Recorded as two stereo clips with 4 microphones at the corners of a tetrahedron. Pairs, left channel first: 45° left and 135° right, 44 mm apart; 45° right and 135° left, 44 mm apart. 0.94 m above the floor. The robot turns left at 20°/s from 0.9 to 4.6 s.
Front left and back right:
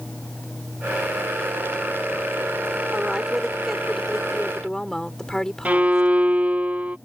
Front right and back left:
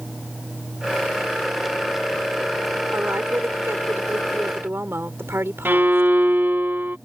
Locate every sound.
2.9 s a woman speaking: 155° left; by 6.1 s 120° left
5.7 s a violin: 175° left